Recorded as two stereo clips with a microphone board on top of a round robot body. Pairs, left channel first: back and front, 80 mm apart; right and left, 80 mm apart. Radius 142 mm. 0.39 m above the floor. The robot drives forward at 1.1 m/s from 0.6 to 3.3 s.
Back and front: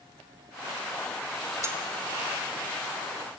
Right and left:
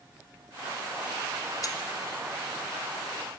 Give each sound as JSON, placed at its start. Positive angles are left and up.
{"t": 1.6, "sound": "cutlery clinking", "azimuth_deg": -50, "distance_m": 0.8}